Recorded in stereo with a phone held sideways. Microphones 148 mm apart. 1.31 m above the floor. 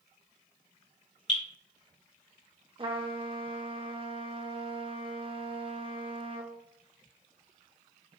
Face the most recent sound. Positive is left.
turn(degrees=-35)  # may be behind; listen again after turning